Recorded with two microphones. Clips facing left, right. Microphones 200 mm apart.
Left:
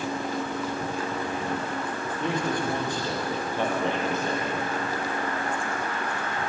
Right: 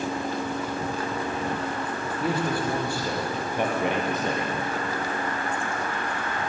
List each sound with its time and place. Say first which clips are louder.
2.2 s a man speaking: right 1 dB; 5° right (ahead or behind), 6 m; by 4.6 s 25° right (ahead or behind), 3.5 m